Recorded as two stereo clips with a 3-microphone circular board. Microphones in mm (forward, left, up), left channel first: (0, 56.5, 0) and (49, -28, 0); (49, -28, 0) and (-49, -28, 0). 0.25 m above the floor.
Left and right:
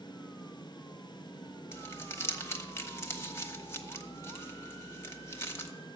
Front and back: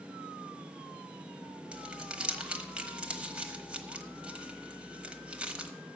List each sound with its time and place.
1.7 s crumpling: 115° left, 1.0 m